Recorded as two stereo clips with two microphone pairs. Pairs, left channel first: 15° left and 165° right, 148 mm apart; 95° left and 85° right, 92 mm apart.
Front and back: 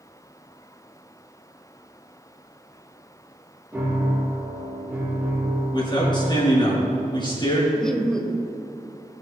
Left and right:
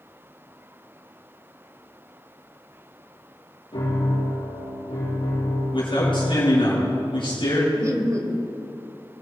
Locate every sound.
3.7 s a piano: 115° left, 5 m
5.7 s a man speaking: 75° left, 5 m
7.8 s laughter: 65° right, 1.1 m